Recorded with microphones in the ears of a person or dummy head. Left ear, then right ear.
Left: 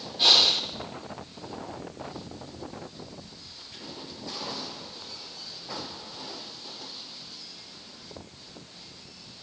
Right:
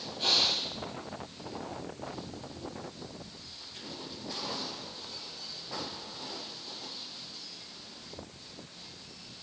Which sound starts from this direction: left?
Breathing, at 0.2 s.